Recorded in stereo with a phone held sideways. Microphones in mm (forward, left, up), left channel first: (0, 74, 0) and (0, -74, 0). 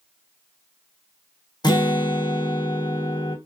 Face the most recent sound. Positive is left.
turn(degrees=30)  # may be behind; listen again after turning